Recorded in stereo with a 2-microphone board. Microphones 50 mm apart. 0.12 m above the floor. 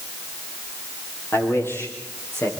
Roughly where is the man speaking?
Left.